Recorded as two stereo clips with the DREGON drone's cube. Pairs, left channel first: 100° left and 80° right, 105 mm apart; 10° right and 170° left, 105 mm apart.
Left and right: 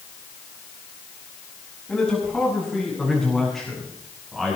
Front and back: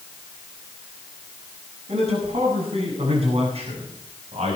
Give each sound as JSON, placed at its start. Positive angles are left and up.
{"t": 1.9, "sound": "a man speaking", "azimuth_deg": 180, "distance_m": 7.5}